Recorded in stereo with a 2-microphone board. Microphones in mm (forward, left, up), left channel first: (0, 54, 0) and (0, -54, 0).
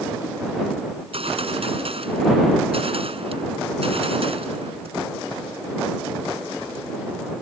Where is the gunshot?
65° right (ahead or behind).